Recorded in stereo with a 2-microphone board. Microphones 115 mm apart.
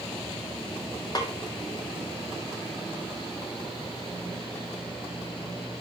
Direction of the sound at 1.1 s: 35° left (ahead or behind).